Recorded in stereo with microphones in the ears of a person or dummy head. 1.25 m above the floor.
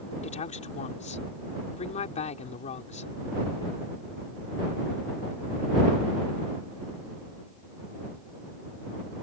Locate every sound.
0.2 s a woman speaking: 40° left (ahead or behind)